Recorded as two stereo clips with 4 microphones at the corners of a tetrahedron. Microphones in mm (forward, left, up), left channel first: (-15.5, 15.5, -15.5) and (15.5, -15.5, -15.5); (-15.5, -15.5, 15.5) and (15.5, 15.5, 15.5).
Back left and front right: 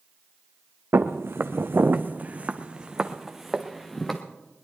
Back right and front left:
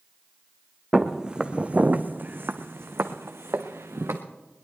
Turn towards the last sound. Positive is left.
turn(degrees=50)